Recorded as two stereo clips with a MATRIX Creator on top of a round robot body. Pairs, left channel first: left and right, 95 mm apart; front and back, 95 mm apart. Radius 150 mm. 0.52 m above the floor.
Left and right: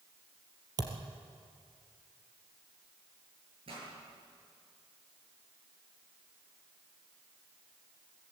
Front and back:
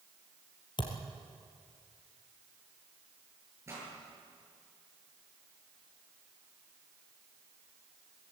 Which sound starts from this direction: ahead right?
A thud, at 0.8 s.